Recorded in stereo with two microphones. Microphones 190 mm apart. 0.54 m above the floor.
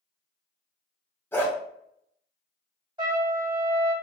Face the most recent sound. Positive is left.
turn(degrees=-20)  # may be behind; listen again after turning